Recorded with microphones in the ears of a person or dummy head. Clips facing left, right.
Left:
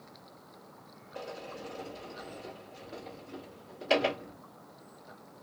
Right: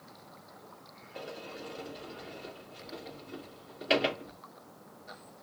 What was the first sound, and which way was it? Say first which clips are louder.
A sliding door: left 1 dB; 20° right (ahead or behind).